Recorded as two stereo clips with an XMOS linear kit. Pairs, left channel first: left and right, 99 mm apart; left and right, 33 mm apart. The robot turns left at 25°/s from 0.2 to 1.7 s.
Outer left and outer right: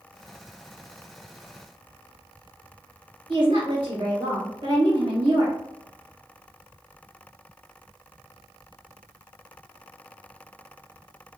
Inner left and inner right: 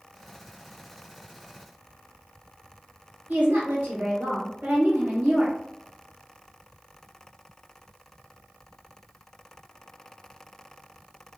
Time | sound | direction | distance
3.3 | a woman speaking | 45° right (ahead or behind) | 1.8 m